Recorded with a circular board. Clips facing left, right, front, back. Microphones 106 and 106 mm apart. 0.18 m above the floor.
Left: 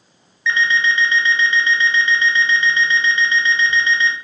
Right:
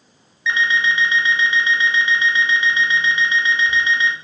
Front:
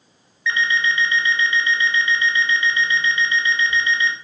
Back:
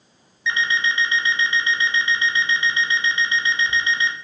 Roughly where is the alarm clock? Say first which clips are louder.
Left 1 dB, front 2 dB; behind right.